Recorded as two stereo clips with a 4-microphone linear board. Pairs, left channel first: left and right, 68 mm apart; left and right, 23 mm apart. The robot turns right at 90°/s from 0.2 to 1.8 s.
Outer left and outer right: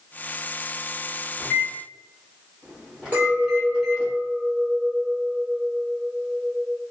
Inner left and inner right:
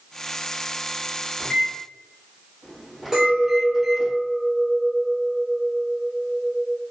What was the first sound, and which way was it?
A microwave, 20° left (ahead or behind).